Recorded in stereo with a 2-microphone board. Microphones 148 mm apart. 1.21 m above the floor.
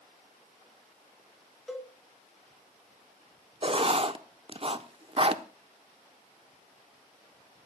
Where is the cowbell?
Centre (ahead or behind), 1.9 m.